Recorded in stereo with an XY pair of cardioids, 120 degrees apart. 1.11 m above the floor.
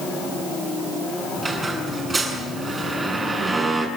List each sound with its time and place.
1.4 s a squeak: 20° right, 7 m